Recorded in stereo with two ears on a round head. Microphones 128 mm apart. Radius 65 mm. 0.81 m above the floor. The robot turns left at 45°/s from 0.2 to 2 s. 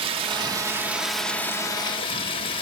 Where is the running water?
140° right, 1.1 m; by 2.6 s 140° left, 1.1 m.